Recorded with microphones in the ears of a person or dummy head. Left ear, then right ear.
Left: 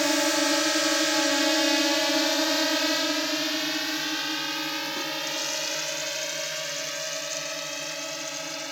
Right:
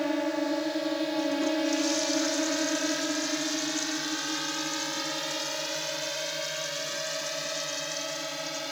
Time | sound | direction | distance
0.0 | a drone | 65° left (ahead or behind) | ?